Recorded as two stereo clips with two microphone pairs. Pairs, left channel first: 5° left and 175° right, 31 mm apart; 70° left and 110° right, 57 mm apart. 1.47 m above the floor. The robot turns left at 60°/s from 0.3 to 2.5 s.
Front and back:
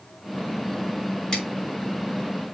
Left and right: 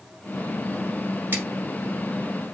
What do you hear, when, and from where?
1.3 s scissors: 60° right, 3.5 m; by 1.4 s 65° right, 3.5 m